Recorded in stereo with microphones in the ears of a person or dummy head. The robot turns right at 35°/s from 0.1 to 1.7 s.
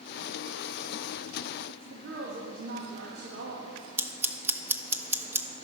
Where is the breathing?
No breathing in this recording.